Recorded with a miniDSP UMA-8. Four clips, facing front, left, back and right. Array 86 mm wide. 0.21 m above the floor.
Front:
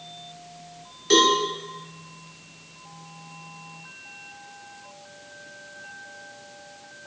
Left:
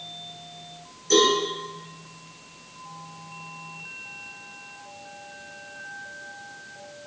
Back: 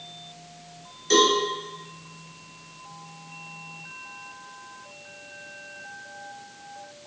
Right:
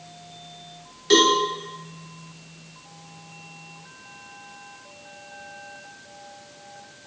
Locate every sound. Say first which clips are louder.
1.1 s a cowbell: right 2 dB, front 1 dB; 60° right, 1.3 m